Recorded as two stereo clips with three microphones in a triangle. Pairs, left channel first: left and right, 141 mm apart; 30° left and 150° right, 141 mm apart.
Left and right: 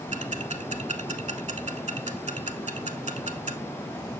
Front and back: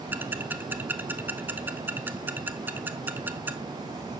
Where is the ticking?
75° right, 0.8 m.